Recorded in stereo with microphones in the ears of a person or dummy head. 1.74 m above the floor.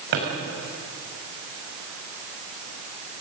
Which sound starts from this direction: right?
A drawer, at 0.1 s.